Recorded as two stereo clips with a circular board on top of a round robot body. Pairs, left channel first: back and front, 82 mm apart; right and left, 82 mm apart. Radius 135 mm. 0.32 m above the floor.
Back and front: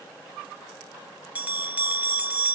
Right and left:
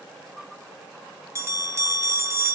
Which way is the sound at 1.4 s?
60° left.